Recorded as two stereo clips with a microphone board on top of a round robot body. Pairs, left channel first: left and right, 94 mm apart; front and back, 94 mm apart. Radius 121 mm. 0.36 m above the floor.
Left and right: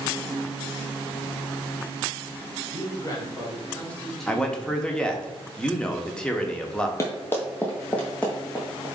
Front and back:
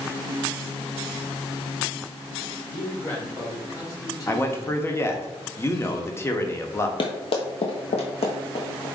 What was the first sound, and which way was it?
A man speaking, 60° left.